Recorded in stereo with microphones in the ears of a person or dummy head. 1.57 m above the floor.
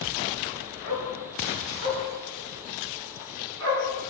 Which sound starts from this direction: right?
A dog barking, at 0.8 s.